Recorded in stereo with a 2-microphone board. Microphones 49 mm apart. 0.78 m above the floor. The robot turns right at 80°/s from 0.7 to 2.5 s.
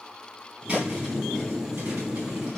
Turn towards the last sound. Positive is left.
turn(degrees=-15)  # may be behind; listen again after turning